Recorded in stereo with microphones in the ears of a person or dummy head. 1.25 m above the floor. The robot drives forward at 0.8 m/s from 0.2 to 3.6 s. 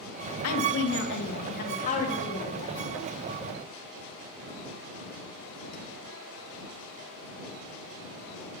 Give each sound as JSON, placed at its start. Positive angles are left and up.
{"t": 0.4, "sound": "a woman speaking", "side_deg": 85, "distance_m": 0.9}